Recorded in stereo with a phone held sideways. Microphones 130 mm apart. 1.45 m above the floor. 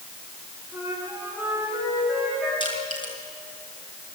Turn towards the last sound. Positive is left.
turn(degrees=40)  # may be behind; listen again after turning